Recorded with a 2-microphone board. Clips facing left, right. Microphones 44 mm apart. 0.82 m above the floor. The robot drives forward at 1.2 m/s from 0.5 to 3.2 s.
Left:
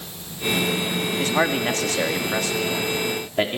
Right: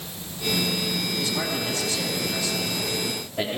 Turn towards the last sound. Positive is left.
turn(degrees=40)  # may be behind; listen again after turning